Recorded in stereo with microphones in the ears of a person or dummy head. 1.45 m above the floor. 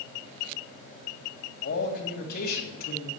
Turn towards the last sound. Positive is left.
turn(degrees=55)  # may be behind; listen again after turning